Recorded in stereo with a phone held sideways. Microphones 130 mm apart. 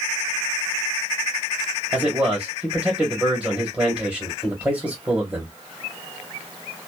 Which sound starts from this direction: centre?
A man speaking, at 1.9 s.